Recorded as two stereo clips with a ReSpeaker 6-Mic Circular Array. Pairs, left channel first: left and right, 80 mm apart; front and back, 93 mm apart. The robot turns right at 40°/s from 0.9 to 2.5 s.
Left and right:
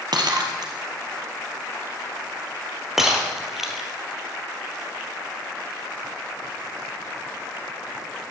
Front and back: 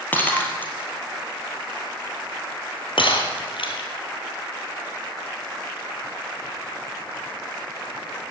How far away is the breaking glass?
About 2.5 m.